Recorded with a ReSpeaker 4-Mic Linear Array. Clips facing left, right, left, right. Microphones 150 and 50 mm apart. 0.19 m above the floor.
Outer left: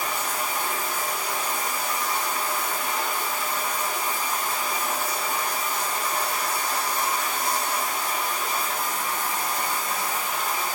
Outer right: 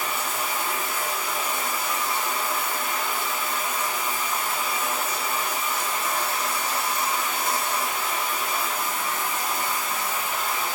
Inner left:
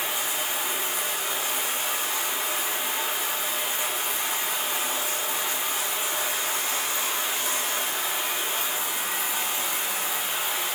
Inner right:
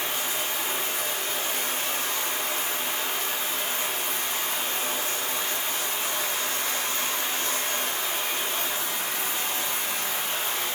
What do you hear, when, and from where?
0.0 s running water: 10° left (ahead or behind), 1.4 m